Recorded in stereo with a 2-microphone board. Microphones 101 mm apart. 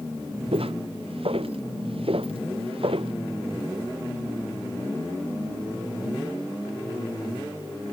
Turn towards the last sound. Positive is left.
turn(degrees=-70)  # may be behind; listen again after turning